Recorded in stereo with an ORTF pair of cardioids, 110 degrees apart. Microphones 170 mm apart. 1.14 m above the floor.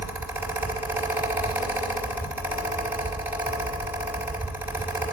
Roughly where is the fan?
Ahead.